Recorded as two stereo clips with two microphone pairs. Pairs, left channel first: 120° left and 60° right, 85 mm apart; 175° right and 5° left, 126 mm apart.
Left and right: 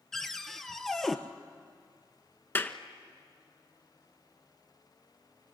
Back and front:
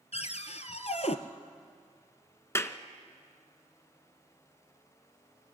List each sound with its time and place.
0.1 s a cupboard door: 155° right, 1.1 m
2.5 s a clap: 145° left, 0.9 m